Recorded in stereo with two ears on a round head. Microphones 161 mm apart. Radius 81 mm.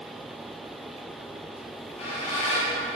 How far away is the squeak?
About 4.5 m.